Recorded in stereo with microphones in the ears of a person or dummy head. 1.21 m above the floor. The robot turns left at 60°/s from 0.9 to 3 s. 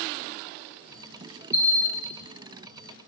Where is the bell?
10° right, 1.3 m; by 2.1 s 45° right, 1.3 m.